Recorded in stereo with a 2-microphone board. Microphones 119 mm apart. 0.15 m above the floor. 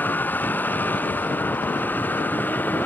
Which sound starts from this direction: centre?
A vehicle, at 0.0 s.